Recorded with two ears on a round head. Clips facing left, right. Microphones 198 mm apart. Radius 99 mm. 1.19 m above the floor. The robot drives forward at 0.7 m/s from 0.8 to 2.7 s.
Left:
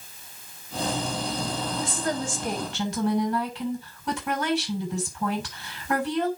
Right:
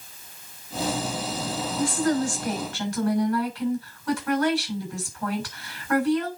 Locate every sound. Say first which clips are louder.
1.8 s a woman speaking: right 9 dB; 25° left (ahead or behind), 7 m; by 6.3 s 20° left (ahead or behind), 7.5 m